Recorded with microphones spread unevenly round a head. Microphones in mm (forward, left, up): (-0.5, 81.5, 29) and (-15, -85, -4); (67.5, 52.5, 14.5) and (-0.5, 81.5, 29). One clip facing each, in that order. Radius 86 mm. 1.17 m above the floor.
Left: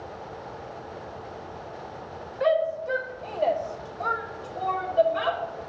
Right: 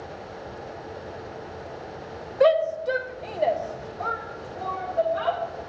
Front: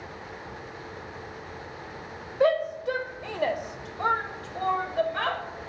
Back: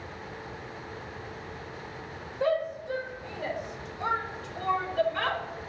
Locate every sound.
2.4 s a shout: 70° right, 1.4 m; by 5.4 s 40° left, 2.5 m